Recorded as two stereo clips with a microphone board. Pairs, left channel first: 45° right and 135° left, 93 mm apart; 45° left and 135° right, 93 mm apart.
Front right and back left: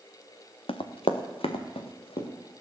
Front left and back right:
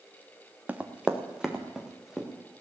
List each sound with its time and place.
0.7 s running footsteps: 60° right, 1.5 m; by 2.3 s 50° right, 3.5 m